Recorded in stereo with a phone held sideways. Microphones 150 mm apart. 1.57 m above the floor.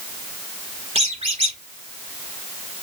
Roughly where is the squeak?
Right.